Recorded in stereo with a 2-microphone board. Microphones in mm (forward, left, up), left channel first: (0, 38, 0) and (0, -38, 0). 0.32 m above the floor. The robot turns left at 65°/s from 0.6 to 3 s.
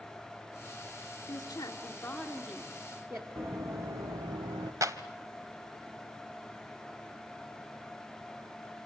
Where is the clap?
50° right (ahead or behind), 1.4 m.